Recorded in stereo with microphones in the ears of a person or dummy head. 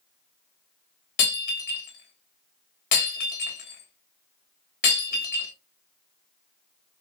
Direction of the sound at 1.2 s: 40° left (ahead or behind).